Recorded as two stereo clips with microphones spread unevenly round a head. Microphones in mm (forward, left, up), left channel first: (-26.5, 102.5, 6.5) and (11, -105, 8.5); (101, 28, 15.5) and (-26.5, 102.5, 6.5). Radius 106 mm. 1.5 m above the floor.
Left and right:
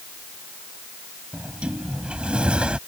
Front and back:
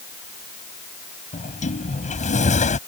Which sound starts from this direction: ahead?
A sliding door, at 1.3 s.